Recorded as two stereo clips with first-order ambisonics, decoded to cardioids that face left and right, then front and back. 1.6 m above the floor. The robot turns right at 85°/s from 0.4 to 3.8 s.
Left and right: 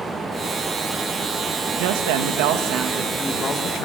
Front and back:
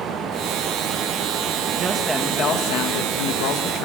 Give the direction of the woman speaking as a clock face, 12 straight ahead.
4 o'clock.